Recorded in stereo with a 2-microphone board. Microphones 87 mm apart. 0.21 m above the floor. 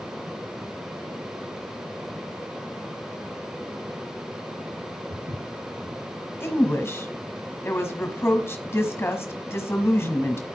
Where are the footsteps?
75° right (ahead or behind), 6 m.